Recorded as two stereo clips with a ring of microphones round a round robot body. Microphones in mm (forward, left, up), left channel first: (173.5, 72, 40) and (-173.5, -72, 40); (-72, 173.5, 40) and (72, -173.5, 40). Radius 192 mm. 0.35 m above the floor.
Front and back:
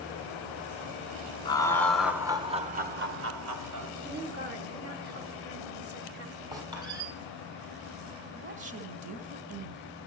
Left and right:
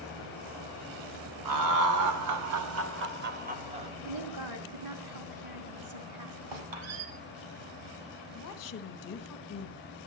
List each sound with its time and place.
1.4 s laughter: 55° right, 2.0 m; by 3.9 s 140° right, 2.0 m
4.0 s a woman speaking: 95° right, 4 m
6.5 s a squeak: 80° right, 6.5 m
8.3 s a woman speaking: 150° left, 1.4 m